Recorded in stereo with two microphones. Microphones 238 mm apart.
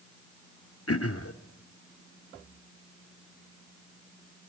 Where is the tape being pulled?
I don't hear tape being pulled.